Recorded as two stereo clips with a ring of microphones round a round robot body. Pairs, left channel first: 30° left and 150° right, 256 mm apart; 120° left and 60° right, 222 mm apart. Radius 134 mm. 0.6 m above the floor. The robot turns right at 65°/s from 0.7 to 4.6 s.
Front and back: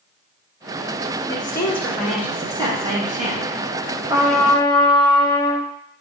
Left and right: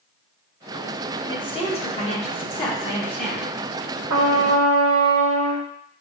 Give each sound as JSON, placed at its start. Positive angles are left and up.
{"t": 1.3, "sound": "a woman speaking", "azimuth_deg": 75, "distance_m": 1.2}
{"t": 4.1, "sound": "a trumpet", "azimuth_deg": -75, "distance_m": 0.6}